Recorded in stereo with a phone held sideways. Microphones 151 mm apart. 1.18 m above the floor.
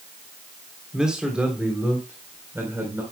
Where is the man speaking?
5° right (ahead or behind), 3.5 m; by 3.0 s 15° right (ahead or behind), 4 m.